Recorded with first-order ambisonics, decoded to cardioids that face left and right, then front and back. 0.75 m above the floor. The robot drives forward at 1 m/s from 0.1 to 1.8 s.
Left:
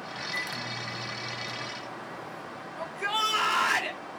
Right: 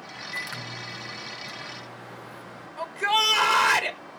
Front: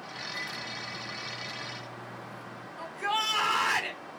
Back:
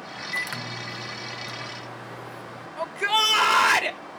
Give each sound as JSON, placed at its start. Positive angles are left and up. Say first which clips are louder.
{"t": 0.3, "sound": "a microwave", "louder": "even, back 8 dB", "azimuth_deg": -175, "distance_m": 0.7}
{"t": 2.8, "sound": "a shout", "louder": "right 6 dB, back 8 dB", "azimuth_deg": -170, "distance_m": 1.8}